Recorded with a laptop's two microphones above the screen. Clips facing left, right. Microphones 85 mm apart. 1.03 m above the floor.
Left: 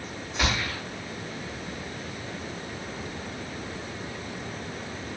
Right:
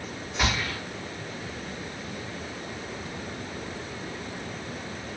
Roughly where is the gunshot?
Centre.